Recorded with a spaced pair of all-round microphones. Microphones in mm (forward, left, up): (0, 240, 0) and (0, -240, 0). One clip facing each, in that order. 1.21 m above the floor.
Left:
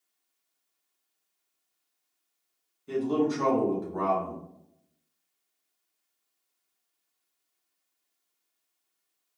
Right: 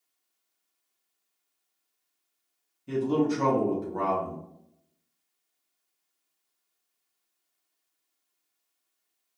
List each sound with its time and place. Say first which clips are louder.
2.9 s a man speaking: right 1 dB; 50° right (ahead or behind), 0.9 m